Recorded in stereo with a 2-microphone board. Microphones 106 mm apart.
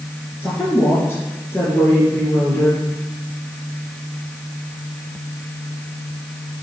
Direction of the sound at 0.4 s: 20° left (ahead or behind).